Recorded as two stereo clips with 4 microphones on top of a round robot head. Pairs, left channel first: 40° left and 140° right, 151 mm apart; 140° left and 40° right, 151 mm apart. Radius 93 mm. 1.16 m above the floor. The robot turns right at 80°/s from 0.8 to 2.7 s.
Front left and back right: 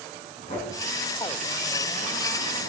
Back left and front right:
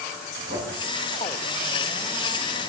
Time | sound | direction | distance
0.5 | knocking | 15° right | 3.5 m